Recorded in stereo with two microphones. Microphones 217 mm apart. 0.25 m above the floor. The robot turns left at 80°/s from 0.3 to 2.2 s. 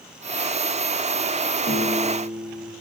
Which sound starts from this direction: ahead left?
A piano, at 1.7 s.